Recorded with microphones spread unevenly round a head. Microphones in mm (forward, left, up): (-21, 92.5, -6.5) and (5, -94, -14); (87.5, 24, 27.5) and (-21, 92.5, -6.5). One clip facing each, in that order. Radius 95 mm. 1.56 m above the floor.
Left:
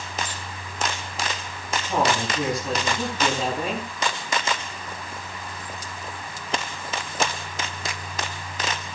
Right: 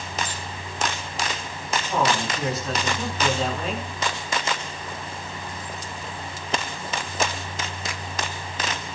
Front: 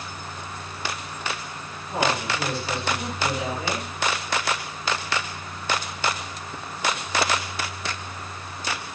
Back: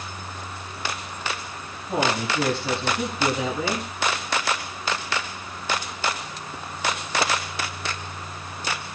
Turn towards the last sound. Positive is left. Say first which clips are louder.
# left 1 dB, back 1 dB
turn(degrees=175)